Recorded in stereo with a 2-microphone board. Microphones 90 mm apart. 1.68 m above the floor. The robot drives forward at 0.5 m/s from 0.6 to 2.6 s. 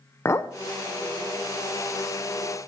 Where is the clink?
30° left (ahead or behind), 0.6 m.